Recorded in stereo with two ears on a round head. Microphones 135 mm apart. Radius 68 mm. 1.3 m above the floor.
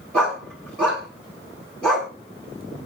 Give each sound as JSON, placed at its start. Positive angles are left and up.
{"t": 0.1, "sound": "a dog barking", "side_deg": 5, "distance_m": 6.0}